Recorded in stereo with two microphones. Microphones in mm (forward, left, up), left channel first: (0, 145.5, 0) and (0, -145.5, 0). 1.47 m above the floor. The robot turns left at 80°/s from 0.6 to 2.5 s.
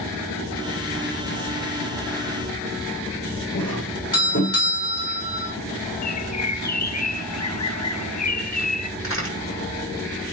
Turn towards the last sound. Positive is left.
turn(degrees=45)  # may be behind; listen again after turning